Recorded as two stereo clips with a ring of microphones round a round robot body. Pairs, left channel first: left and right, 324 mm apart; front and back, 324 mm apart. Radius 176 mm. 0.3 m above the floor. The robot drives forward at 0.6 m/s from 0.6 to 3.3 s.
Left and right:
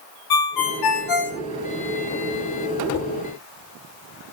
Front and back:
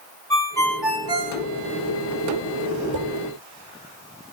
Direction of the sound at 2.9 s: 160° left.